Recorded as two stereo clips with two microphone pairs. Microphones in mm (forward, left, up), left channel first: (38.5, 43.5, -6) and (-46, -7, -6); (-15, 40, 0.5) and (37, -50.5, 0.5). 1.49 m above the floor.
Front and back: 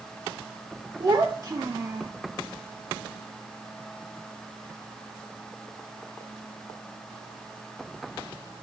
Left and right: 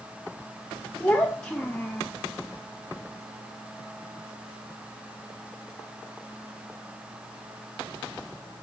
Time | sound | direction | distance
1.0 | a child speaking | 165° right | 0.9 m